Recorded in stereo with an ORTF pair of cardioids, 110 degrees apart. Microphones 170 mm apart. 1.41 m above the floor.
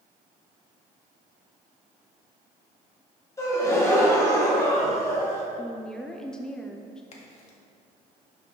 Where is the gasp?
20° left, 2.5 m.